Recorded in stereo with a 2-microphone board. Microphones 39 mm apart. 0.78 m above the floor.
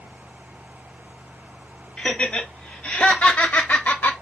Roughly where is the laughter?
Centre.